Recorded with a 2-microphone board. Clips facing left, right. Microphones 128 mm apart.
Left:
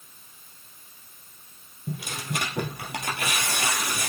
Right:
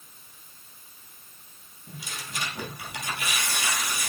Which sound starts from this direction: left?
Tearing paper, at 1.9 s.